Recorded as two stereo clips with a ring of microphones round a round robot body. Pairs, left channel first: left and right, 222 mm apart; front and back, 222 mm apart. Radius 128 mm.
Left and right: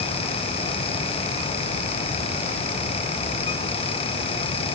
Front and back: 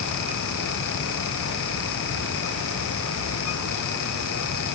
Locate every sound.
Only background noise.